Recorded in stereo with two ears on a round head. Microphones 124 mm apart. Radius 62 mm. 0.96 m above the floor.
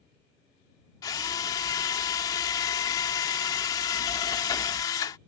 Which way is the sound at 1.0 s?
30° left (ahead or behind).